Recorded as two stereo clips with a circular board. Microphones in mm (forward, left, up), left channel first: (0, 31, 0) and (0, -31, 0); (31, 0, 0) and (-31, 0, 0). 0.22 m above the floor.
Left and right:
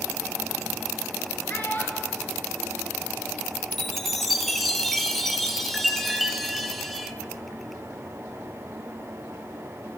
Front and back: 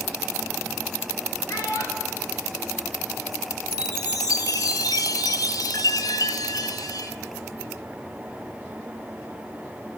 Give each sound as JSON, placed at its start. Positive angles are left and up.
{"t": 1.5, "sound": "a child speaking", "azimuth_deg": 30, "distance_m": 2.5}
{"t": 3.7, "sound": "a chime", "azimuth_deg": 5, "distance_m": 0.6}